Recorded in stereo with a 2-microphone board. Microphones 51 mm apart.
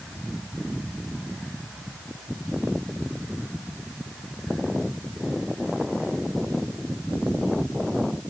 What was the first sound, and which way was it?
Only background noise.